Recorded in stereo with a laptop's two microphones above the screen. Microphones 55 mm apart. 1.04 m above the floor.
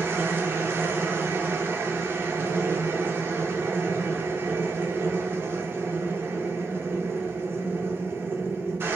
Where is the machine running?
45° right (ahead or behind), 0.7 m.